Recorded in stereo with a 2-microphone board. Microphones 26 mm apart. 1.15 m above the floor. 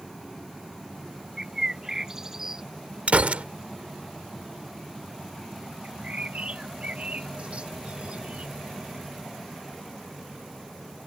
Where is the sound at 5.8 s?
60° right (ahead or behind).